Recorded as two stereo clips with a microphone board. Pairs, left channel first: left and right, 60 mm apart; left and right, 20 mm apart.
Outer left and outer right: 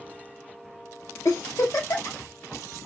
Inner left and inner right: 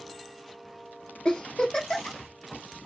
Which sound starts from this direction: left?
A giggle, at 1.2 s.